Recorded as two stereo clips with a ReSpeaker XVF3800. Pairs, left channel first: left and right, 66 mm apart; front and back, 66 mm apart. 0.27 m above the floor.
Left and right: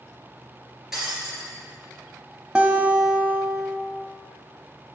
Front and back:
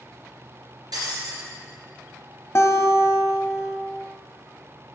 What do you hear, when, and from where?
0.9 s breaking glass: 175° right, 3.5 m
2.5 s a guitar: 20° right, 0.8 m